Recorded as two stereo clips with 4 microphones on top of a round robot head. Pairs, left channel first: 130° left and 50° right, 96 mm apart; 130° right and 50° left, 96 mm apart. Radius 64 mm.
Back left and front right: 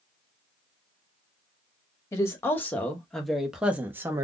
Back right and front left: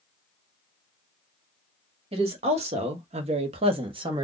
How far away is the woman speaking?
About 1.3 m.